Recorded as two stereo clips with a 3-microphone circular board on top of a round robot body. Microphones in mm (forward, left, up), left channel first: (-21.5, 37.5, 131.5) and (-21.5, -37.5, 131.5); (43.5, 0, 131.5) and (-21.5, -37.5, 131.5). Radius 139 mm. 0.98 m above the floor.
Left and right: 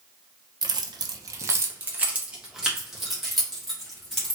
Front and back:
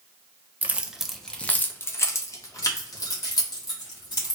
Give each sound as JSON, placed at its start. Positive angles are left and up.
{"t": 0.6, "sound": "keys jangling", "azimuth_deg": -85, "distance_m": 0.6}